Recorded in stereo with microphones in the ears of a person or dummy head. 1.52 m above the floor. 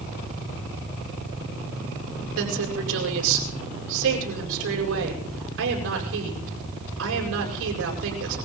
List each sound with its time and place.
2.4 s a woman speaking: 70° right (ahead or behind), 8 m